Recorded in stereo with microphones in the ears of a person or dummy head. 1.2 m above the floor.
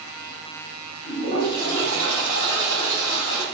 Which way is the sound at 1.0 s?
65° left (ahead or behind).